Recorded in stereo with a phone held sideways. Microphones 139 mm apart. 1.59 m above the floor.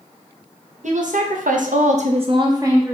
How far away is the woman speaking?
About 1.0 m.